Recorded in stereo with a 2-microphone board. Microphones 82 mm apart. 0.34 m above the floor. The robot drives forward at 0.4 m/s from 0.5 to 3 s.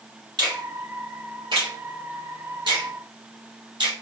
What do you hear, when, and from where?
0.4 s a finger snap: 65° right (ahead or behind), 3 m; by 3.9 s 75° right (ahead or behind), 2.5 m